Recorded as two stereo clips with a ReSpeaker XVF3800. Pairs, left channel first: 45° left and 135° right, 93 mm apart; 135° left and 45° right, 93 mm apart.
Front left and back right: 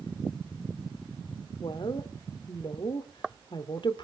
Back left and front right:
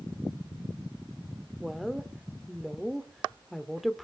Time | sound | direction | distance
1.6 | a woman speaking | 45° left | 2.0 m